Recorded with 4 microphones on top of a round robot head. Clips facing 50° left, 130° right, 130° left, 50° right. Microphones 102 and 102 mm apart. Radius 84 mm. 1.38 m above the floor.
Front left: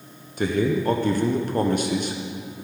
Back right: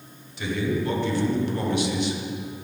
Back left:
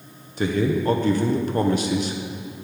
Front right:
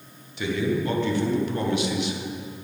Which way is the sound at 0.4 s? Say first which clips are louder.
Front left 4 dB, back left 3 dB; 85° left.